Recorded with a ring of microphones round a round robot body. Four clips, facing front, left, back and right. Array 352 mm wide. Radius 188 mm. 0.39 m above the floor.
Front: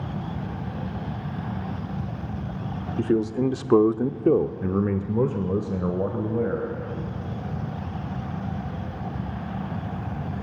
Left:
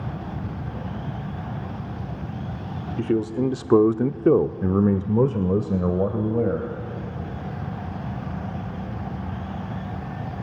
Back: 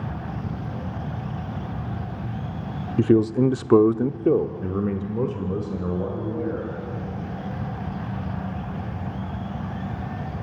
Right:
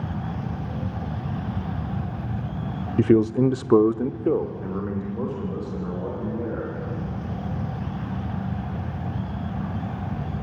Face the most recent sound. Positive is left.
turn(degrees=70)